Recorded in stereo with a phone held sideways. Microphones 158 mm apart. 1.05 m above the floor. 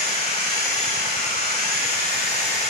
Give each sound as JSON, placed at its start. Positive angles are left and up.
{"t": 0.0, "sound": "a machine running", "side_deg": -70, "distance_m": 8.5}